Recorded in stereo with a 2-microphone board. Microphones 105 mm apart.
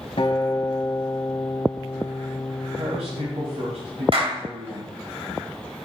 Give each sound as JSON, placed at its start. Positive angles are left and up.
{"t": 0.2, "sound": "a guitar", "side_deg": 60, "distance_m": 1.7}
{"t": 2.8, "sound": "a man speaking", "side_deg": -75, "distance_m": 3.0}
{"t": 4.1, "sound": "a clap", "side_deg": -60, "distance_m": 3.0}